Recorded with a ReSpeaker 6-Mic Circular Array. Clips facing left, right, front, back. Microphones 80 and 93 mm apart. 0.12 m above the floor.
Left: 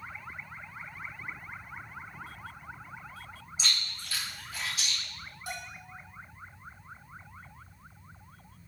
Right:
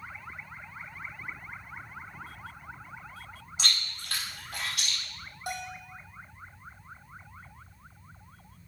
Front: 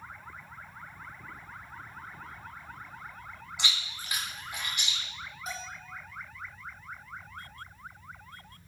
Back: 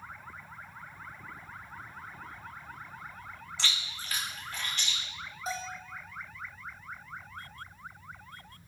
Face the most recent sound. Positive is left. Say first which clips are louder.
# right 5 dB, back 5 dB
turn(degrees=-120)